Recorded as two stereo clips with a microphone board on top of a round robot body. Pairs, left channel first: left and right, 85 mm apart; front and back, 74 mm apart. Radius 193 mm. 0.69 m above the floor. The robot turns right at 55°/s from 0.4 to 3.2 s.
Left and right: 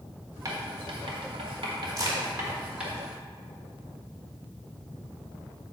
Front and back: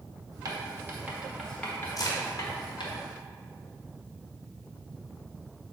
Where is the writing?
140° right, 1.7 m; by 2.9 s 5° right, 1.7 m.